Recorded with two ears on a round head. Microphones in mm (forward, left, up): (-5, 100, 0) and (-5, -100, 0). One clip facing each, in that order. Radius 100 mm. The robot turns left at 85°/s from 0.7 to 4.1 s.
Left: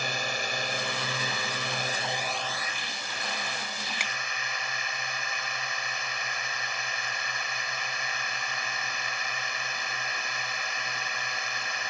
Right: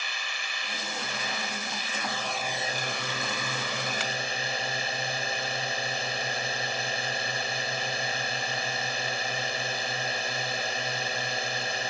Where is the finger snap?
15° left (ahead or behind); by 4.1 s 5° left (ahead or behind).